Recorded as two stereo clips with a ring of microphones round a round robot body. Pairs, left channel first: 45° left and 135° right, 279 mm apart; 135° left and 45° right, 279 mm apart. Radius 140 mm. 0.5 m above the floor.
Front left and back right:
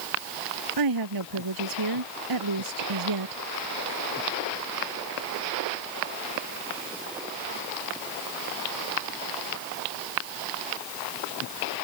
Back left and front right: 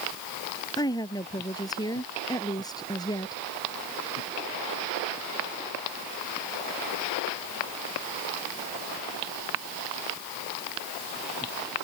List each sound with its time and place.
0.8 s a woman speaking: 150° right